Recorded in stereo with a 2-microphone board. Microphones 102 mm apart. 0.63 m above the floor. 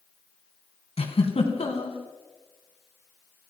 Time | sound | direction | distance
1.0 | a giggle | 80° left | 3.5 m